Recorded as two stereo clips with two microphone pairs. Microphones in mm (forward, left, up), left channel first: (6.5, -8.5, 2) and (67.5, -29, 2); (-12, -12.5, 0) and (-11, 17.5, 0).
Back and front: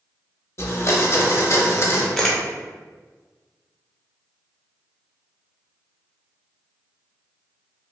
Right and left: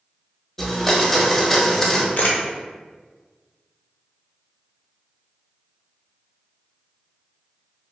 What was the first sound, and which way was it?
A blender, 170° right.